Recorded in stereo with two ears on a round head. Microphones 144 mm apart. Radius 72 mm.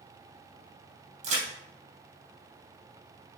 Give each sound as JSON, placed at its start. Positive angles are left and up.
{"t": 1.2, "sound": "a crack", "side_deg": -45, "distance_m": 3.5}